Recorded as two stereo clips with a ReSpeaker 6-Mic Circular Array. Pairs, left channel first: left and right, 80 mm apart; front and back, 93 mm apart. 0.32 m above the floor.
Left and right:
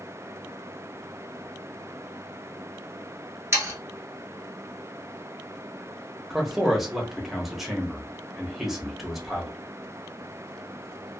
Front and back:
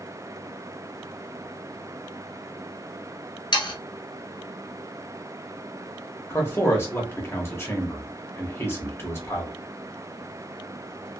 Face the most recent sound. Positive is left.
turn(degrees=-5)